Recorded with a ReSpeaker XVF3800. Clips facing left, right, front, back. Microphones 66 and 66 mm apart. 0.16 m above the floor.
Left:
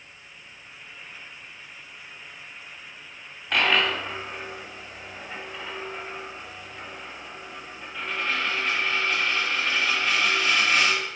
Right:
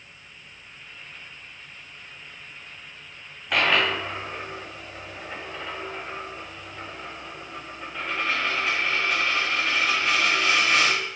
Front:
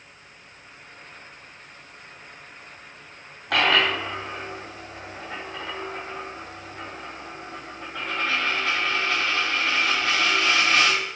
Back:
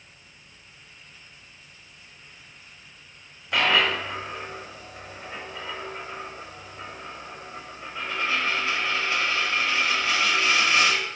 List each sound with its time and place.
3.5 s a dropped coin: 5° right, 4.5 m